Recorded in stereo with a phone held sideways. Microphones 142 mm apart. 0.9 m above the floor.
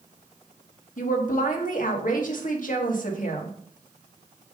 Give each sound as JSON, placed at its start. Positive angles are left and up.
{"t": 1.0, "sound": "a woman speaking", "side_deg": 70, "distance_m": 1.5}